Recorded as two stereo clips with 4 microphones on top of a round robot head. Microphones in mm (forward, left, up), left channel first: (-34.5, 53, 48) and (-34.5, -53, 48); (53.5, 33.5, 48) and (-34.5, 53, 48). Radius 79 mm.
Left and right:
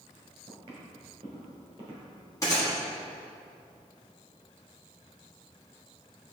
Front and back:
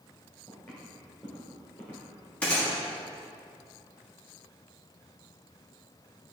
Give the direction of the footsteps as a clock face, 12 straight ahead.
3 o'clock.